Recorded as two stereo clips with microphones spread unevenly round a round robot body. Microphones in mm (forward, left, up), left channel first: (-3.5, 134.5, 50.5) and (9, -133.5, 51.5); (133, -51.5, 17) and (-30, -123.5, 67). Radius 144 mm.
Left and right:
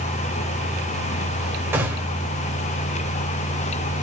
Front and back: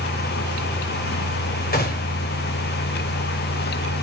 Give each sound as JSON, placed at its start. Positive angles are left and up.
{"t": 1.7, "sound": "a gunshot", "azimuth_deg": -5, "distance_m": 4.5}